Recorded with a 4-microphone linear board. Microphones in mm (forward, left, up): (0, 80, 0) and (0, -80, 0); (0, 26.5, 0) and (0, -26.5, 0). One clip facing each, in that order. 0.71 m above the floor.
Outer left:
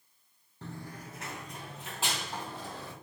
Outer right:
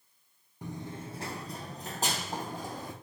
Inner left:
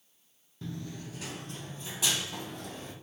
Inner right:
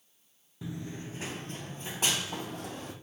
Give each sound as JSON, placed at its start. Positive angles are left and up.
{"t": 0.6, "sound": "running footsteps", "side_deg": -15, "distance_m": 0.7}